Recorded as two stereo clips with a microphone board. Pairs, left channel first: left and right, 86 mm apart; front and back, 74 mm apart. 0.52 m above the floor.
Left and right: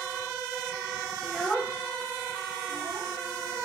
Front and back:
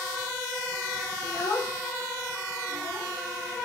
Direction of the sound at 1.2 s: 15° left.